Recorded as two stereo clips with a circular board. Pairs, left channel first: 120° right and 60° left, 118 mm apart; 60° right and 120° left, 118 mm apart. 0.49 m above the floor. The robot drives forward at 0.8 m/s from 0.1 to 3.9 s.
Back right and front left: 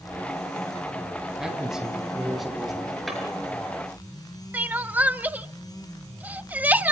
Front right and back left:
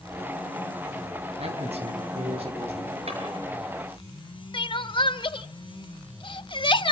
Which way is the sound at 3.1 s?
150° left.